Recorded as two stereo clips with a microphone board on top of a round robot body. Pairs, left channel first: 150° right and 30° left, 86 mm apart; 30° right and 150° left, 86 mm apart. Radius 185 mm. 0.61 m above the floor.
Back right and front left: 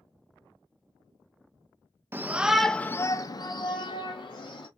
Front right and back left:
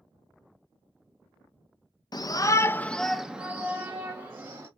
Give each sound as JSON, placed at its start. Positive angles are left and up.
{"t": 2.1, "sound": "a shout", "azimuth_deg": -25, "distance_m": 0.8}